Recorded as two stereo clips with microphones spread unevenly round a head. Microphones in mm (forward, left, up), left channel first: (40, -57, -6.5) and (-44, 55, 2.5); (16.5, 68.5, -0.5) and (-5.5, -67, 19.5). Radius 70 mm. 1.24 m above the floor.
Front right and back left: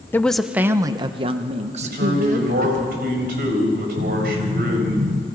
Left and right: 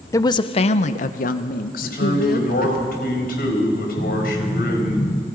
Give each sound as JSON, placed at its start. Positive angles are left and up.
{"t": 0.1, "sound": "a woman speaking", "azimuth_deg": 20, "distance_m": 0.8}
{"t": 1.8, "sound": "a man speaking", "azimuth_deg": 105, "distance_m": 5.5}
{"t": 4.0, "sound": "an explosion", "azimuth_deg": 145, "distance_m": 2.5}